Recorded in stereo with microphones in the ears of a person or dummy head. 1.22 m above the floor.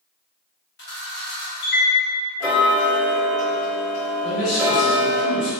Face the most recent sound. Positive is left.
turn(degrees=60)  # may be behind; listen again after turning